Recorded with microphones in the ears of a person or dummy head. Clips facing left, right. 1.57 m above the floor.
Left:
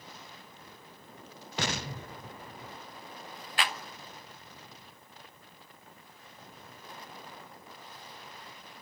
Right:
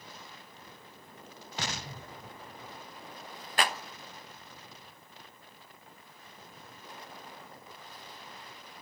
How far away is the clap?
About 1.1 m.